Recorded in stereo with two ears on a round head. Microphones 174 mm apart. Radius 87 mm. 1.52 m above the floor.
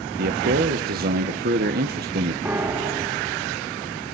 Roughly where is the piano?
Centre.